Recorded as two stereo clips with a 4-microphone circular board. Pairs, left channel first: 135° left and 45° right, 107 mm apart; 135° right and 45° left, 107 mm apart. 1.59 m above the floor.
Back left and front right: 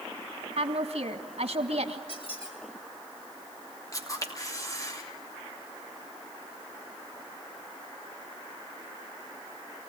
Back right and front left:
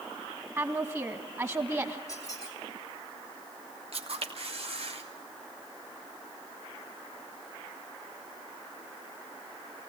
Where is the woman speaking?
20° right, 2 m.